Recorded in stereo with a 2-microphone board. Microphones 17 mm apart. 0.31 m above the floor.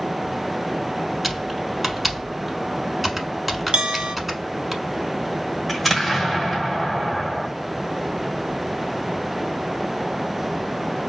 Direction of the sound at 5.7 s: 5° left (ahead or behind).